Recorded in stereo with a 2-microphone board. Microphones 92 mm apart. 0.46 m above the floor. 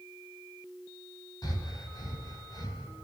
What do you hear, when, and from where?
1.4 s breathing: 45° left (ahead or behind), 3 m